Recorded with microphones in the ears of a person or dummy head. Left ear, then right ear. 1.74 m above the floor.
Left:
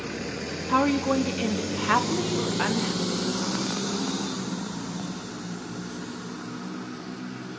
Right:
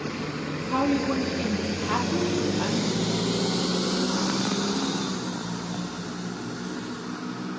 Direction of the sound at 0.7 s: 55° left (ahead or behind).